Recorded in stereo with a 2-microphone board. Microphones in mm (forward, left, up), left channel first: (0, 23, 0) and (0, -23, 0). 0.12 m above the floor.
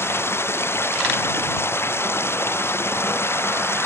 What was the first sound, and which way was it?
Running water, 60° left (ahead or behind).